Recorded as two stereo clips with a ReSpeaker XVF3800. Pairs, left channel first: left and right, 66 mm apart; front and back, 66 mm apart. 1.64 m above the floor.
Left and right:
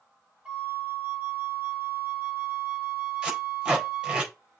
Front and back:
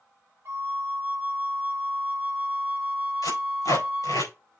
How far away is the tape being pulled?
About 4 m.